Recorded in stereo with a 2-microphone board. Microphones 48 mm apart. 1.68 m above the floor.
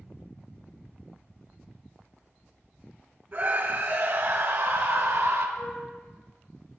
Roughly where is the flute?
Left.